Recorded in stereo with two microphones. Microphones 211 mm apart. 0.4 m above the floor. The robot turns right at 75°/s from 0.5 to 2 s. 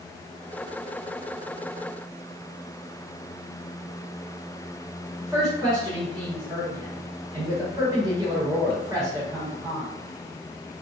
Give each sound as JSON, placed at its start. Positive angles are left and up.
{"t": 5.2, "sound": "a woman speaking", "side_deg": -20, "distance_m": 1.7}